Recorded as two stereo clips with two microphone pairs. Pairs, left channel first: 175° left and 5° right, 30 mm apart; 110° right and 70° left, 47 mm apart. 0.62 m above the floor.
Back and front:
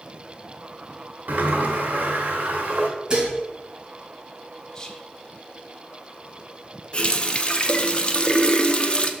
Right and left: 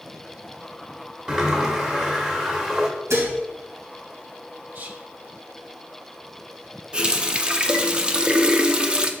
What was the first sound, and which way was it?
A sliding door, 5° right.